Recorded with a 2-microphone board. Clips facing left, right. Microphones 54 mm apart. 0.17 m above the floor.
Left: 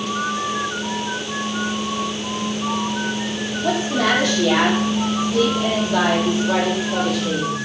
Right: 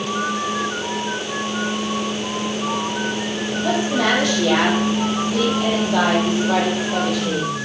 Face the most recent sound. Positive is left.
turn(degrees=-5)  # may be behind; listen again after turning